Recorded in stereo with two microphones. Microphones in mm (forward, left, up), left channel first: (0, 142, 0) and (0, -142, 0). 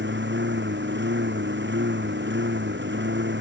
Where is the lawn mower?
40° right (ahead or behind).